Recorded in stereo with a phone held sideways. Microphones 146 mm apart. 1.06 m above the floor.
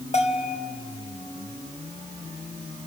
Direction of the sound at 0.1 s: 45° left (ahead or behind).